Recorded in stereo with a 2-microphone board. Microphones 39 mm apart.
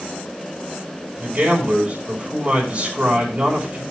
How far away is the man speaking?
About 5.5 m.